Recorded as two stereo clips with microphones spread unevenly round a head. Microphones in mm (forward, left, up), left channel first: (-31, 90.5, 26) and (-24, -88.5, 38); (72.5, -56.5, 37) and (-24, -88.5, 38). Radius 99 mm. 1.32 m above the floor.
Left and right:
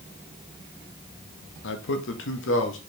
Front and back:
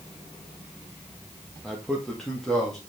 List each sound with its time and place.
1.6 s a man speaking: 110° left, 1.4 m; by 2.8 s 105° left, 2 m